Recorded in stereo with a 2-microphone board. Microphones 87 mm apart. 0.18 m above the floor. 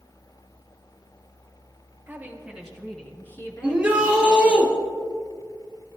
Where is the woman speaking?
20° right (ahead or behind), 2 m; by 4.6 s 60° left (ahead or behind), 3 m.